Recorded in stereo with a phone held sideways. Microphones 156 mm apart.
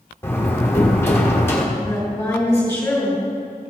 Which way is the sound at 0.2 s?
15° left (ahead or behind).